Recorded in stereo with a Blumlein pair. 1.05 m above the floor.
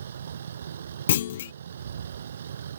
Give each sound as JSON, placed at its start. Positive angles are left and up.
{"t": 0.0, "sound": "a vehicle", "azimuth_deg": -65}
{"t": 1.1, "sound": "a clunk", "azimuth_deg": 60}